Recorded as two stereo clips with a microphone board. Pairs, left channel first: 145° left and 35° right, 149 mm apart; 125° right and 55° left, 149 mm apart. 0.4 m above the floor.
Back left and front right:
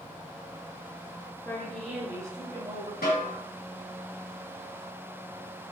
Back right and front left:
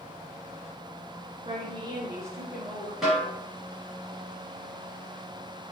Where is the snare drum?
145° left, 1.9 m.